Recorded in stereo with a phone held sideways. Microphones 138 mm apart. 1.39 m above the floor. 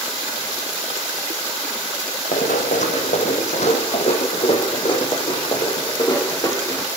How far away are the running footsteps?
About 4 m.